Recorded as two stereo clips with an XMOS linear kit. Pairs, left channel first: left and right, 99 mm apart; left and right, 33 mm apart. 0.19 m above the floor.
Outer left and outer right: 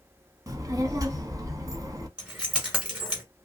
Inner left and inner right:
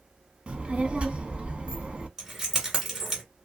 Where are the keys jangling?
10° right (ahead or behind), 1.5 m.